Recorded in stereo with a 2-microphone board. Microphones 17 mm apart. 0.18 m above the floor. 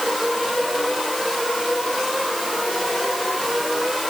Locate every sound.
Only background noise.